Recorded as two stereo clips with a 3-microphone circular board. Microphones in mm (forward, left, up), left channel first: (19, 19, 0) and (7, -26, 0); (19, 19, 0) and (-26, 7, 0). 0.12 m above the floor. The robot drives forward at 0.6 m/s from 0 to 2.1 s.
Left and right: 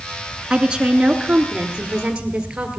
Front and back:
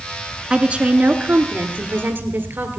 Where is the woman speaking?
145° right, 1.1 m; by 2.8 s 170° right, 1.7 m.